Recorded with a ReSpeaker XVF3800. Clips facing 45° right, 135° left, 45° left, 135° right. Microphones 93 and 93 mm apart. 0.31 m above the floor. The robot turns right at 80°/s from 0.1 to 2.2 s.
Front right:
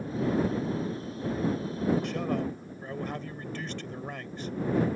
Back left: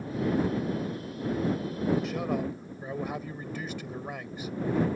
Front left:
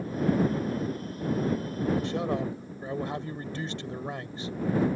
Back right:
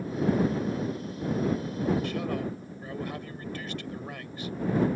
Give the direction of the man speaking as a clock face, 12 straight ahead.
10 o'clock.